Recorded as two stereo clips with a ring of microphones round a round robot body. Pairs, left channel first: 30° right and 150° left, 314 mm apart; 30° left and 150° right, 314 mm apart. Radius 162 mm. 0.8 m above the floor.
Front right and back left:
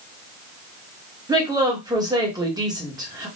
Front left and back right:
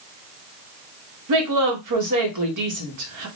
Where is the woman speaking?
135° right, 1.1 m.